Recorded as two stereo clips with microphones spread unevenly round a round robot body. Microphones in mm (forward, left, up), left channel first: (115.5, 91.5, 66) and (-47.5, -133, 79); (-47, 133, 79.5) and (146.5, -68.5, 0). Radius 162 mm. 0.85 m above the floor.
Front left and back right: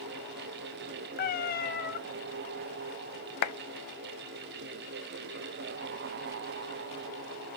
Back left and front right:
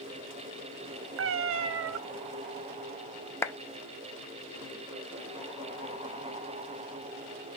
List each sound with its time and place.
1.2 s a cat meowing: straight ahead, 0.5 m
3.4 s a clap: 45° left, 0.6 m